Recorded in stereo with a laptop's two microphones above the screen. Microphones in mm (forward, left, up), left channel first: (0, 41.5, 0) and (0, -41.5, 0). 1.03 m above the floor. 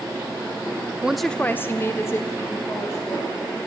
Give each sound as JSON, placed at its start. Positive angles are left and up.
{"t": 1.0, "sound": "a woman speaking", "side_deg": -10, "distance_m": 0.7}